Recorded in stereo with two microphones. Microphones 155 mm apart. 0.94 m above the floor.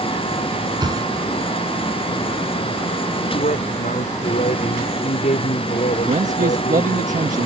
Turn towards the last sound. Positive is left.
turn(degrees=-55)  # may be behind; listen again after turning